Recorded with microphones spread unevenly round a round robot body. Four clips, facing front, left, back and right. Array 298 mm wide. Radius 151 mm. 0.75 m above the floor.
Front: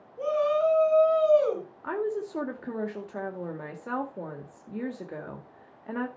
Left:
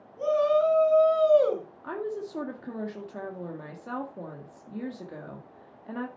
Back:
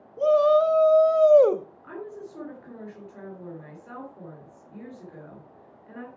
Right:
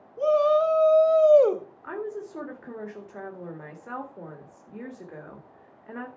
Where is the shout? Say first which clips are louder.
Right 2 dB, back 6 dB; 175° right, 1.8 m; by 1.7 s 150° right, 1.3 m.